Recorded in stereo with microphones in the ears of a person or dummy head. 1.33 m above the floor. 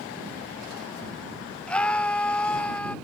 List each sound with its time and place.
1.7 s a scream: 10° left (ahead or behind)